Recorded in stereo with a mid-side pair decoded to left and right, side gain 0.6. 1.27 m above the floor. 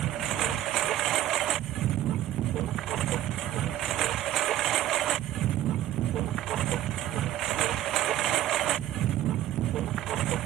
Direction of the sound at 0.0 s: 55° right.